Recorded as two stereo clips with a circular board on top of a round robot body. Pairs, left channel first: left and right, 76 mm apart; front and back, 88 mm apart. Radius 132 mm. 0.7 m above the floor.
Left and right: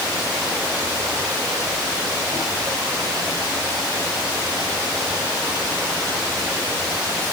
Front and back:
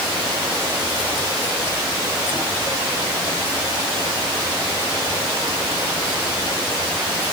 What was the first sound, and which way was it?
Only background noise.